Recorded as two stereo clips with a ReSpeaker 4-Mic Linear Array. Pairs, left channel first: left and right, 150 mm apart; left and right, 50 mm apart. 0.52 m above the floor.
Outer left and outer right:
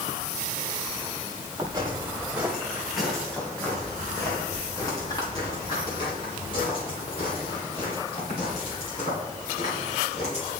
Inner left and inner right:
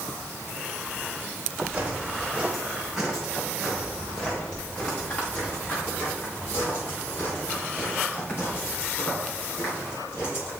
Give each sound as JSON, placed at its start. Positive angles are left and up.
{"t": 1.6, "sound": "footsteps", "side_deg": -25, "distance_m": 2.5}